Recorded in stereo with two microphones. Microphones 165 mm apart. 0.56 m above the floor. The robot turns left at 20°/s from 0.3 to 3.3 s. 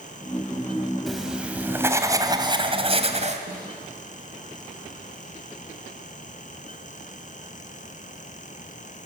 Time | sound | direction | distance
1.1 | writing | straight ahead | 1.9 m
3.5 | a snare drum | 55° right (ahead or behind) | 7 m